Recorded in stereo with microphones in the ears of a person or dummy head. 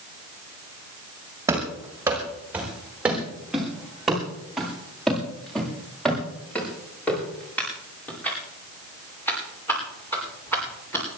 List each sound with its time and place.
1.5 s running footsteps: 15° right (ahead or behind), 5.5 m; by 11.0 s 15° left (ahead or behind), 13.5 m